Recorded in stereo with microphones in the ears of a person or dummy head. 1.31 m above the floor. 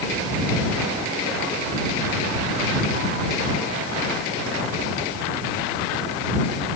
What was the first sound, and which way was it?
Only background noise.